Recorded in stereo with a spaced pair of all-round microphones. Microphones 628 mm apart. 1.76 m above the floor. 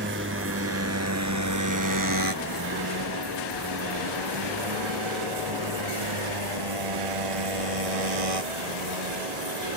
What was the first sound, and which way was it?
A motorcycle, 15° right (ahead or behind).